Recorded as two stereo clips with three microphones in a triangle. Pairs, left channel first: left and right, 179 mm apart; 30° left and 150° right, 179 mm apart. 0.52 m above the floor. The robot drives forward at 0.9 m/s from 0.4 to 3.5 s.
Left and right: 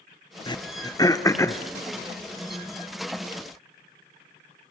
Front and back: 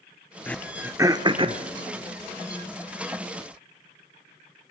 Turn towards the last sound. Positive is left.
turn(degrees=175)